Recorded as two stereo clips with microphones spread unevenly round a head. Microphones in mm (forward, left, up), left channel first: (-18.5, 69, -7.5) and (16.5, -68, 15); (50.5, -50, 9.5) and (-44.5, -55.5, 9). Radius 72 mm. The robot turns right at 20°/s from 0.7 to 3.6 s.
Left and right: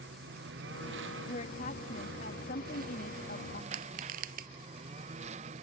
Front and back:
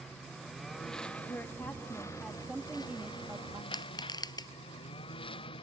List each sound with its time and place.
0.0 s a lawn mower: 85° right; by 5.6 s 30° right
1.3 s a woman speaking: 70° left; by 3.6 s 120° left
3.7 s crushing: 45° right